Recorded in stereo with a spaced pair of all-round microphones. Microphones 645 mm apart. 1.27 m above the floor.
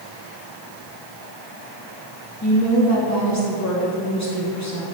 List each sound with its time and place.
2.4 s a woman speaking: 25° left (ahead or behind), 1.8 m